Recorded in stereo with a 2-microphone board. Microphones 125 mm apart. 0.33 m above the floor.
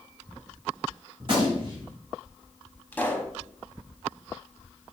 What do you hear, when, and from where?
1.2 s a gunshot: 40° right (ahead or behind), 1.9 m
2.9 s a pop: 15° left (ahead or behind), 0.6 m